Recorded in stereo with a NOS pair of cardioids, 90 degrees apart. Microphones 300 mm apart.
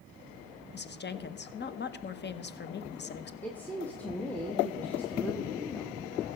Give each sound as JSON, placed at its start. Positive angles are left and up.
{"t": 0.7, "sound": "a woman speaking", "azimuth_deg": 35, "distance_m": 0.9}
{"t": 3.4, "sound": "a woman speaking", "azimuth_deg": 5, "distance_m": 1.1}